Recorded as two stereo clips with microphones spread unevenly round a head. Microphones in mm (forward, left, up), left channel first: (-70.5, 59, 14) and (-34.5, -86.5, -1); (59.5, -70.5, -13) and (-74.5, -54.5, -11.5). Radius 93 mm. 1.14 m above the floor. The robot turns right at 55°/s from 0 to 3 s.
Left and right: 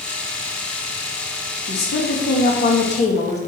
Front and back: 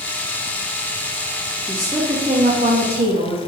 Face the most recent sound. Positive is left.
turn(degrees=150)